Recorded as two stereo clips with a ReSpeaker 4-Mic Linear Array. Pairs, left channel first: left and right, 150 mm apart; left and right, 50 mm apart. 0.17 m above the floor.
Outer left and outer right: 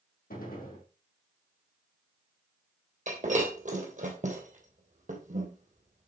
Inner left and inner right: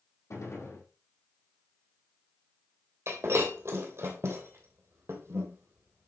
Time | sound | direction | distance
0.3 | a gunshot | 75° left (ahead or behind) | 3.5 m
3.1 | breaking glass | 55° right (ahead or behind) | 2.5 m